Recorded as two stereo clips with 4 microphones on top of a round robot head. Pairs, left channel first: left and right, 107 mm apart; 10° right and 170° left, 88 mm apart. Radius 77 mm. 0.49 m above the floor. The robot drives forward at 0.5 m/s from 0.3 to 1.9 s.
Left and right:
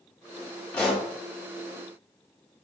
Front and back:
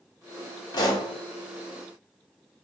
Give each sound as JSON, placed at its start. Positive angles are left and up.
{"t": 0.7, "sound": "a pop", "azimuth_deg": 15, "distance_m": 1.3}